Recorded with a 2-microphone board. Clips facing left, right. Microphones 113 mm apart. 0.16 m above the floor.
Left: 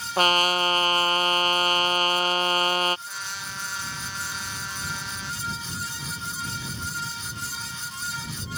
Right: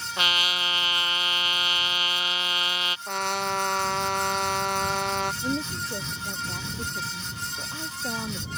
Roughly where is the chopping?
I don't hear chopping.